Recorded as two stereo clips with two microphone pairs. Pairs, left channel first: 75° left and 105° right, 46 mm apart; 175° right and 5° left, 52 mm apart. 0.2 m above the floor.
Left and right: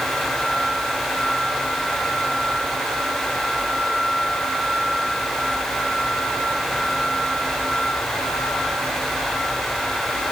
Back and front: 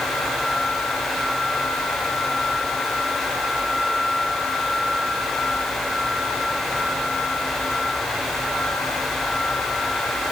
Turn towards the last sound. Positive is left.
No sound to turn to.